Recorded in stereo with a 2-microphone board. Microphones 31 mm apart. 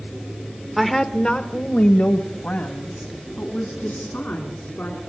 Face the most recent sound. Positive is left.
turn(degrees=75)  # may be behind; listen again after turning